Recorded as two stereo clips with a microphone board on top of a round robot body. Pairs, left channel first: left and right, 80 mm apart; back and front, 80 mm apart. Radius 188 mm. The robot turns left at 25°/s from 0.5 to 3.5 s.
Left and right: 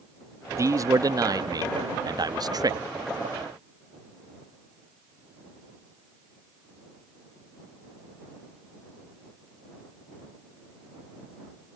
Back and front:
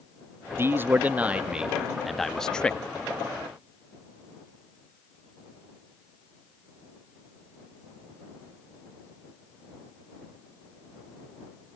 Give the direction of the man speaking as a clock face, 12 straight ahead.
2 o'clock.